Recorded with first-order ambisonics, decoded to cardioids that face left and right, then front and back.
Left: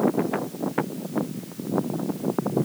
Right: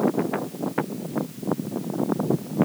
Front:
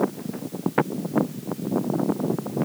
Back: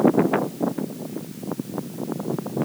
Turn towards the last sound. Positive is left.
No sound to turn to.